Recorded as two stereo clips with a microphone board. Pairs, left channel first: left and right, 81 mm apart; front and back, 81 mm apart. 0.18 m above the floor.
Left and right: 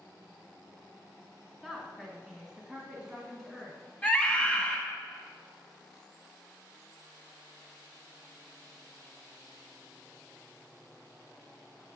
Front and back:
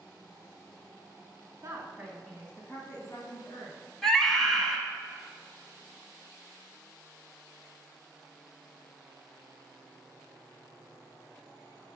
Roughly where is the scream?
Ahead left.